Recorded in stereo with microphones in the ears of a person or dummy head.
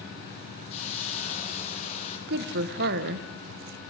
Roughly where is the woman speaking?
Right.